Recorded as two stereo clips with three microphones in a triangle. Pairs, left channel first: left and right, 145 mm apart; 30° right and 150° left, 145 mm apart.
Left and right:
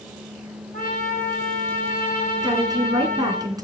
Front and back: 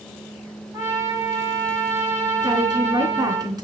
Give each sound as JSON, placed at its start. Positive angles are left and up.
{"t": 0.7, "sound": "a trumpet", "azimuth_deg": 85, "distance_m": 9.0}
{"t": 2.4, "sound": "a woman speaking", "azimuth_deg": -150, "distance_m": 3.5}